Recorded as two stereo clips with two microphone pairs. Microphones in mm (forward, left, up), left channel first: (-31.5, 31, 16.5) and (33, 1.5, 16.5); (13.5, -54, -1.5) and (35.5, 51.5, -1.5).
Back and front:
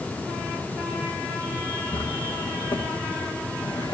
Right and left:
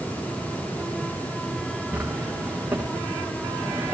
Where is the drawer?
155° left, 4.5 m.